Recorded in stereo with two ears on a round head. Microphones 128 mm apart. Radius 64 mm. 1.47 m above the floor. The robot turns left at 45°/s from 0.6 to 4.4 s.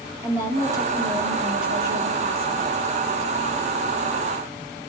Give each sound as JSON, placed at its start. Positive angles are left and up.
{"t": 0.2, "sound": "a woman speaking", "azimuth_deg": -20, "distance_m": 3.5}